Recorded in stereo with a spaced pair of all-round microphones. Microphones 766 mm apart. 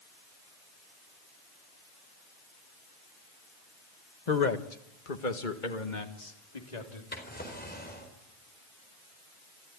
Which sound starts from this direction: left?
A man speaking, at 4.3 s.